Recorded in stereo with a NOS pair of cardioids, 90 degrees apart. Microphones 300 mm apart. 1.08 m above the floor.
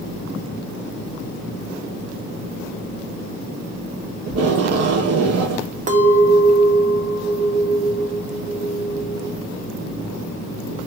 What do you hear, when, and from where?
4.3 s tape being pulled: 50° right, 0.8 m
5.9 s a clink: 25° right, 0.6 m